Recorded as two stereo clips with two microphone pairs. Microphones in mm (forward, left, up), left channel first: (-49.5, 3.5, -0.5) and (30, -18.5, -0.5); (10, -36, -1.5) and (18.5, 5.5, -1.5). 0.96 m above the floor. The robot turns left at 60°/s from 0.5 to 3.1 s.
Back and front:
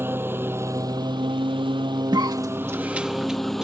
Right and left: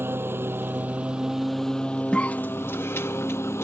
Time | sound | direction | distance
0.0 | a lawn mower | 50° left | ?
2.1 | a cough | 40° right | ?